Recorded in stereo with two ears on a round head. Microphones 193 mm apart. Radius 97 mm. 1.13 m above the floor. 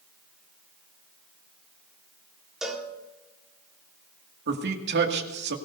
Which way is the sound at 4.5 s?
55° right (ahead or behind).